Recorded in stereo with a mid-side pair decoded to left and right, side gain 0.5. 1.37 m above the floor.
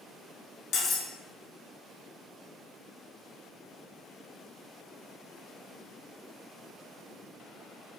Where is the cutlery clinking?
60° left, 1.6 m.